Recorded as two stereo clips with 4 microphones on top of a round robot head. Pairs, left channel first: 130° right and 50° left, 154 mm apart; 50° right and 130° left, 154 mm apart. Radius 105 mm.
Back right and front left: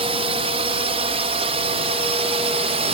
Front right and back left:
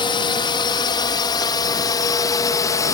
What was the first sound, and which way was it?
A drone, 5° left.